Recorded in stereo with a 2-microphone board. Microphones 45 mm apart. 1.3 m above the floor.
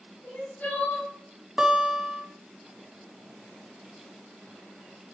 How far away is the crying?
About 3.5 m.